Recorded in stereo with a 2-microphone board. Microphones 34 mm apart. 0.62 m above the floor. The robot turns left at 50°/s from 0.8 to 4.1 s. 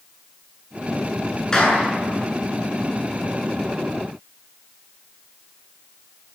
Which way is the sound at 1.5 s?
20° left (ahead or behind).